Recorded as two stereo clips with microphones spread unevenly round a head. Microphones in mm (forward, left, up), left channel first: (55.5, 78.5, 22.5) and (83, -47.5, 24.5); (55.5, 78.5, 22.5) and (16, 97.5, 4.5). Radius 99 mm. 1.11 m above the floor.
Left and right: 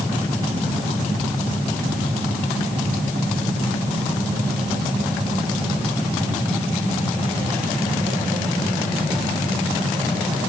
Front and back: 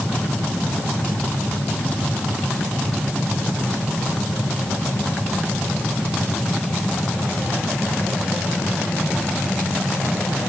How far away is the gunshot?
I don't hear a gunshot.